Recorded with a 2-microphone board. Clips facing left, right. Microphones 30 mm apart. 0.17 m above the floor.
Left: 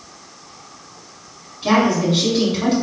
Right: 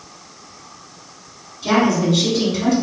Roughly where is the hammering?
I don't hear hammering.